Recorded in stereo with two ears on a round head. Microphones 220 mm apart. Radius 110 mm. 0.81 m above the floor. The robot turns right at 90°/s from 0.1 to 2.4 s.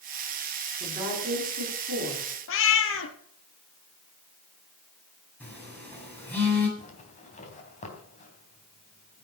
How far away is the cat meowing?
About 1.8 m.